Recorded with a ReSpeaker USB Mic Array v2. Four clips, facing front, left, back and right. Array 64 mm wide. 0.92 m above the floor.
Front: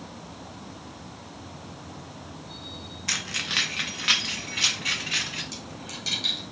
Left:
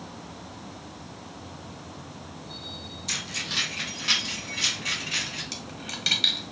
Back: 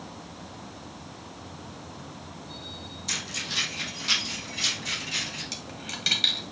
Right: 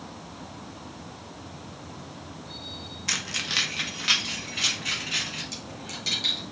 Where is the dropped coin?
140° left, 1.2 m.